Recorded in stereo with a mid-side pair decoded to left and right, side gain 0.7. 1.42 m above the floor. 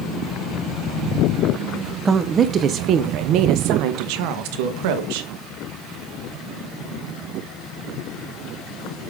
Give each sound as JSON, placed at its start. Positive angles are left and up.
{"t": 2.0, "sound": "a woman speaking", "azimuth_deg": -25, "distance_m": 0.8}